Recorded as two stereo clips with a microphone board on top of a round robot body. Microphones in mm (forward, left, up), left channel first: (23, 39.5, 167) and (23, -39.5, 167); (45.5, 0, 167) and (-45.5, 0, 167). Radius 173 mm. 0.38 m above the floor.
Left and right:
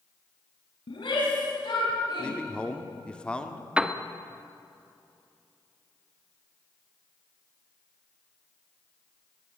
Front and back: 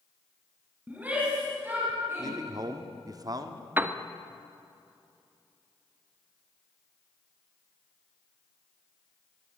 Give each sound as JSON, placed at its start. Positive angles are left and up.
{"t": 0.9, "sound": "a shout", "azimuth_deg": 105, "distance_m": 6.0}
{"t": 2.2, "sound": "a man speaking", "azimuth_deg": 160, "distance_m": 1.8}
{"t": 3.8, "sound": "a piano", "azimuth_deg": -150, "distance_m": 1.5}